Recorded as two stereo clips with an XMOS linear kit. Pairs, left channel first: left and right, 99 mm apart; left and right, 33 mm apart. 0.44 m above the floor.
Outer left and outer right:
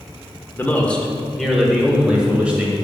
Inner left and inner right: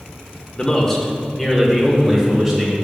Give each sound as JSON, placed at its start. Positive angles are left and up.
{"t": 0.6, "sound": "a man speaking", "side_deg": 20, "distance_m": 0.9}